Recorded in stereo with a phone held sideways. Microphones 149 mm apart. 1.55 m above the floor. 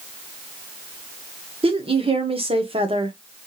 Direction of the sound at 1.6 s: 35° right (ahead or behind).